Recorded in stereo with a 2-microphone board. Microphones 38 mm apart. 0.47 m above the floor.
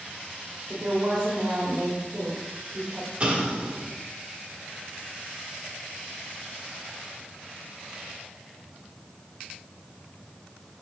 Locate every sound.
0.7 s a woman speaking: 50° right (ahead or behind), 1.3 m
3.2 s an explosion: 30° right (ahead or behind), 1.5 m